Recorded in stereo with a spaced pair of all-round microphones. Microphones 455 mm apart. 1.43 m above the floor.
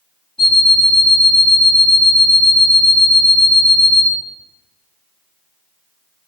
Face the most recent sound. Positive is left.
turn(degrees=10)  # may be behind; listen again after turning